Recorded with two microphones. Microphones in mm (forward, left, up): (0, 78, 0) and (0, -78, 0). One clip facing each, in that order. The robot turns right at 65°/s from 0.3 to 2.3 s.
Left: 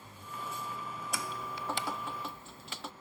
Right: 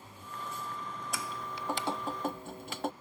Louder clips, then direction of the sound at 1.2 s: Right 3 dB; 165° left.